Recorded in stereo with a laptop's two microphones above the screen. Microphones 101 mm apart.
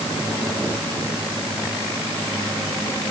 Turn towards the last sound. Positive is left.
No sound to turn to.